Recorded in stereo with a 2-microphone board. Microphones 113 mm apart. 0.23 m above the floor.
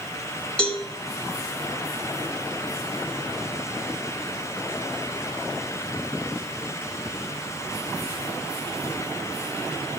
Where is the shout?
I don't hear a shout.